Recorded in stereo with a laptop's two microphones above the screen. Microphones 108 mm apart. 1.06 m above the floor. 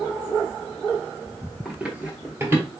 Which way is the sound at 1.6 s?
5° right (ahead or behind).